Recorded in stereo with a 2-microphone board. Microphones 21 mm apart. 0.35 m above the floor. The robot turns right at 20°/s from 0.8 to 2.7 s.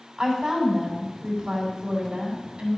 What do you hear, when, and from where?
0.2 s a woman speaking: 140° right, 3 m; by 2.8 s 105° right, 3 m